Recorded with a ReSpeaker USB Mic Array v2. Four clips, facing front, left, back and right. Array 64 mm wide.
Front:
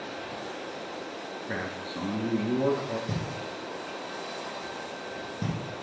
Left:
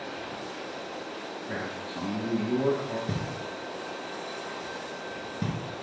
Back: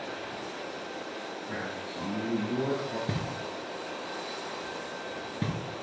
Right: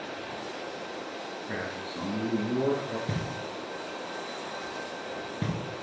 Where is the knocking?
160° right, 1.8 m.